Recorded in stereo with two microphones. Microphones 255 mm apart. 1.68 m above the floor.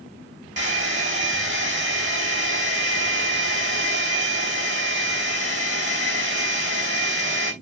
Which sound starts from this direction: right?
A hair dryer, at 0.6 s.